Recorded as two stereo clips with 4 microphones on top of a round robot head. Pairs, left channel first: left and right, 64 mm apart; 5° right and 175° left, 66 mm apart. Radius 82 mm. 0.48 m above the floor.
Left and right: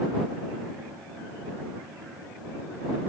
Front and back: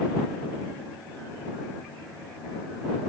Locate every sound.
Only background noise.